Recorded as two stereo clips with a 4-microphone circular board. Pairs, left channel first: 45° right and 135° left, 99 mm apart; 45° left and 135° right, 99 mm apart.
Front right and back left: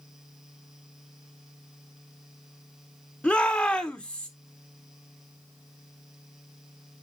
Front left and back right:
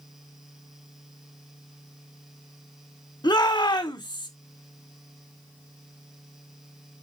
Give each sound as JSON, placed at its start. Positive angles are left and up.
{"t": 3.2, "sound": "a shout", "azimuth_deg": 30, "distance_m": 1.9}